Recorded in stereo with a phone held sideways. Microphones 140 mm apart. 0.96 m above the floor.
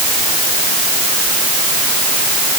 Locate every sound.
Only background noise.